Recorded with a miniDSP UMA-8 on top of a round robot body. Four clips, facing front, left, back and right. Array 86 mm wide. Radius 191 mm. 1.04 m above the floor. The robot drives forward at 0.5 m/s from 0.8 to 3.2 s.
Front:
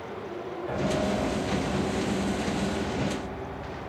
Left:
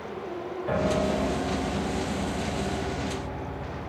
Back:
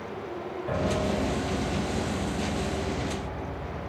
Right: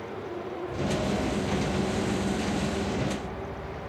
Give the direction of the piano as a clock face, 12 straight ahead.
8 o'clock.